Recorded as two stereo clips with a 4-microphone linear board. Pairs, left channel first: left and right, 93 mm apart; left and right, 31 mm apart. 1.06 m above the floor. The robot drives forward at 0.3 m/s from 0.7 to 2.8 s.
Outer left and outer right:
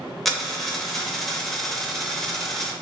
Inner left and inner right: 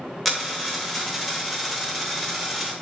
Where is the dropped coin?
Centre (ahead or behind), 0.8 m.